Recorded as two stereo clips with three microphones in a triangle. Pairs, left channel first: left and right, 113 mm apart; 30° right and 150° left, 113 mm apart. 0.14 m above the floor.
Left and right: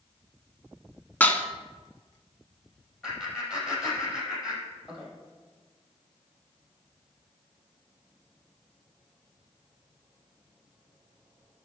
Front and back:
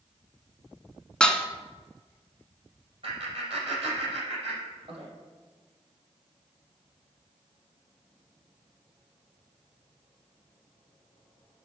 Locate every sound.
1.2 s dishes clattering: 40° left, 0.7 m
3.0 s laughter: 175° right, 4.5 m